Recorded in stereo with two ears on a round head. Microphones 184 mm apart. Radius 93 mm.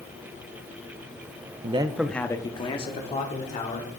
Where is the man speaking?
30° right (ahead or behind), 0.5 m; by 3.9 s 35° left (ahead or behind), 1.9 m.